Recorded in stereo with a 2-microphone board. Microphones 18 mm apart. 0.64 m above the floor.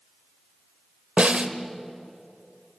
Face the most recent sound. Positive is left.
turn(degrees=-75)  # may be behind; listen again after turning